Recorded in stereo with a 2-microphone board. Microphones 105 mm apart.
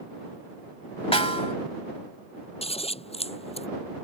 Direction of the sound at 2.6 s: 65° left (ahead or behind).